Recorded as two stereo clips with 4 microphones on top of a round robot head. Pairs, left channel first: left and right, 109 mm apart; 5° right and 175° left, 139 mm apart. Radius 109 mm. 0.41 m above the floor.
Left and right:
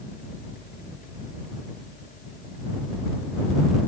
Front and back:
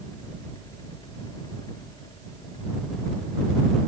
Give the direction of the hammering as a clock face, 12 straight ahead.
No hammering in this recording.